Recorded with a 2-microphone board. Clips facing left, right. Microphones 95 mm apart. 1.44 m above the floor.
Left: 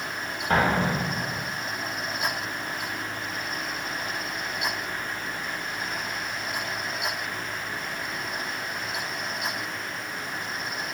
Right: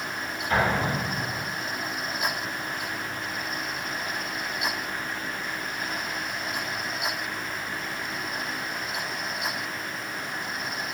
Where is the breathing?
No breathing in this recording.